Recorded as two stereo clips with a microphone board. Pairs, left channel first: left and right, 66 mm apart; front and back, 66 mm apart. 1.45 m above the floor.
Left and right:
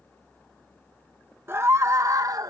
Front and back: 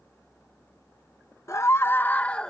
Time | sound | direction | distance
1.5 | a scream | 40° right | ?